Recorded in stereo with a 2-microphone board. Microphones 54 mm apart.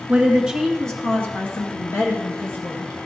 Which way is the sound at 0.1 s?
25° right (ahead or behind).